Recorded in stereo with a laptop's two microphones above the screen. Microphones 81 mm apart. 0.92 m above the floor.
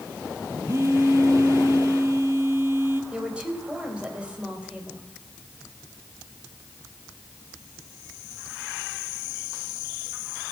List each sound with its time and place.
0.7 s a phone buzzing: 35° right (ahead or behind), 1.7 m
3.1 s a woman speaking: 15° right (ahead or behind), 4 m